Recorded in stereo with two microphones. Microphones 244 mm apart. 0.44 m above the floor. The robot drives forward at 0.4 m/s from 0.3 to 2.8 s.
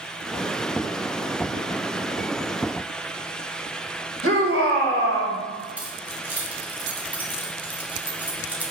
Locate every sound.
4.2 s a shout: 55° right (ahead or behind), 2.5 m
5.8 s keys jangling: 5° right (ahead or behind), 1.7 m